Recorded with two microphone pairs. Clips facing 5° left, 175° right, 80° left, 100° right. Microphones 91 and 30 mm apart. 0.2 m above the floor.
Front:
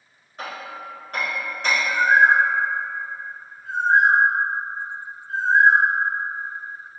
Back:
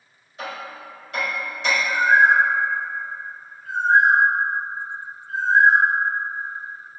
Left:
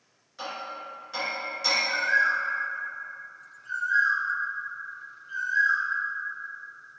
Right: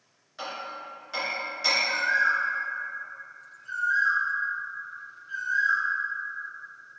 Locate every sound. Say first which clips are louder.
0.4 s hammering: even, even; 25° right, 1.6 m
1.9 s a bird: even, left 2 dB; 30° left, 1.0 m